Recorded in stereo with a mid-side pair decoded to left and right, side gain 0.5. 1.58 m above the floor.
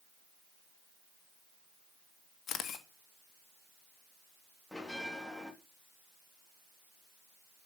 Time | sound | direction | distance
2.5 | a camera shutter | 55° left | 2.0 m
4.7 | a bell | 15° left | 3 m